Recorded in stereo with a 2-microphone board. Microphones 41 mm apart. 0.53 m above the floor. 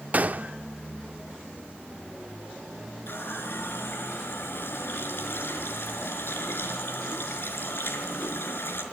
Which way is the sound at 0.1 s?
40° right (ahead or behind).